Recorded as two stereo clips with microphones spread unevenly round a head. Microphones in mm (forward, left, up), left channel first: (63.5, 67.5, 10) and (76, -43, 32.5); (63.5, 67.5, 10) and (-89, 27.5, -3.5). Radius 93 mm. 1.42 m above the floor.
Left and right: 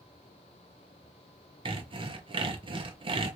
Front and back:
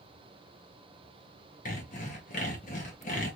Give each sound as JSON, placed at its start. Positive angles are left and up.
{"t": 1.6, "sound": "sawing", "azimuth_deg": -40, "distance_m": 1.1}